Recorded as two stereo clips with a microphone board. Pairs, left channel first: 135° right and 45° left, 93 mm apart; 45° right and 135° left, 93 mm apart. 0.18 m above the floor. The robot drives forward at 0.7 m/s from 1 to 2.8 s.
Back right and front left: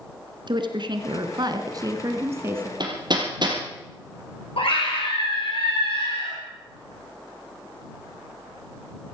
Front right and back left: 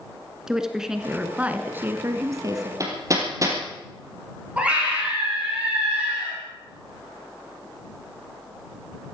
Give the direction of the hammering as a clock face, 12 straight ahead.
9 o'clock.